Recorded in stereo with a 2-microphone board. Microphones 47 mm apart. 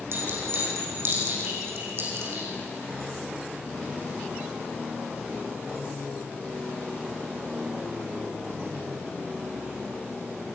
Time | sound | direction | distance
0.1 | a clink | 60° right (ahead or behind) | 9 m